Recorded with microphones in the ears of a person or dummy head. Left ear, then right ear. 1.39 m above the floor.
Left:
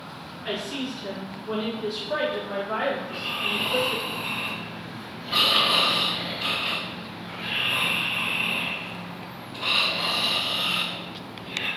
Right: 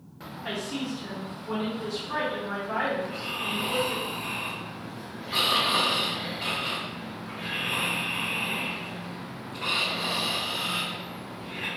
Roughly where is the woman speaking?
Centre.